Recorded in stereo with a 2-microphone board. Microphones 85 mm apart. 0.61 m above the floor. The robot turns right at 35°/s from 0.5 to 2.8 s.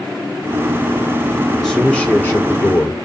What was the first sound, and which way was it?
A man speaking, straight ahead.